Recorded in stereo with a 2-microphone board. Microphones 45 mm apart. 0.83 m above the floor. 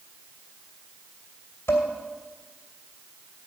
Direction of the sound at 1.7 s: 80° left.